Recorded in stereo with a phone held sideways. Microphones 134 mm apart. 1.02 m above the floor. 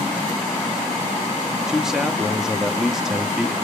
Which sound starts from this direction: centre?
A man speaking, at 1.7 s.